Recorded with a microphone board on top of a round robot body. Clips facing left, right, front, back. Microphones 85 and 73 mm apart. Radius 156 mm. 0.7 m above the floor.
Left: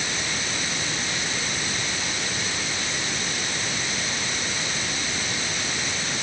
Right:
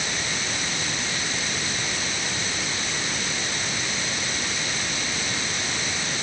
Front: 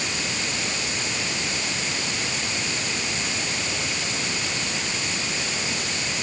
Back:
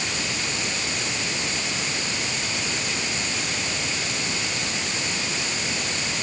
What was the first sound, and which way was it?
Only background noise.